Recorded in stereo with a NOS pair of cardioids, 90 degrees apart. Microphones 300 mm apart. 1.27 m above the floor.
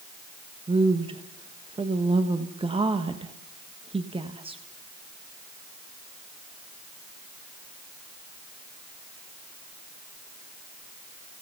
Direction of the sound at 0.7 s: 20° right.